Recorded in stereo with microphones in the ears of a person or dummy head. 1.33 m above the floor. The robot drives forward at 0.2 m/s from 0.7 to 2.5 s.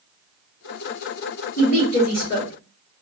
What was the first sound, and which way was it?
A woman speaking, 65° left (ahead or behind).